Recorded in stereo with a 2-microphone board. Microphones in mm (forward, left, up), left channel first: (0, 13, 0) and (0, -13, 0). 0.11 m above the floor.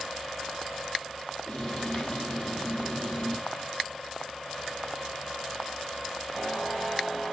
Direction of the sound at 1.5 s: 35° left (ahead or behind).